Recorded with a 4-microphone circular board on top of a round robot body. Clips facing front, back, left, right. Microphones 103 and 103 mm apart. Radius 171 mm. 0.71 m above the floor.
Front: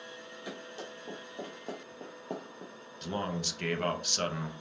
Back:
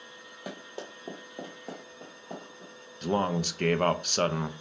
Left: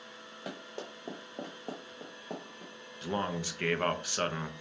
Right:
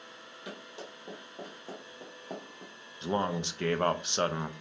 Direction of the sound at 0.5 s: 140° left.